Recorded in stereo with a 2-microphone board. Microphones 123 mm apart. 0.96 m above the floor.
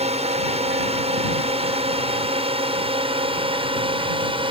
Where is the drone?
60° right (ahead or behind); by 4.5 s 45° right (ahead or behind).